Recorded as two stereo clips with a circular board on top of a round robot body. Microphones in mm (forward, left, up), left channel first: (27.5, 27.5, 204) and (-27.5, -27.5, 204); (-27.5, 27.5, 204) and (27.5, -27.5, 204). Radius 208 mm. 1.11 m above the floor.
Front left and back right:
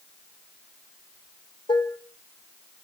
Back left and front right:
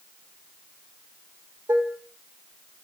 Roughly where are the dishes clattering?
Ahead.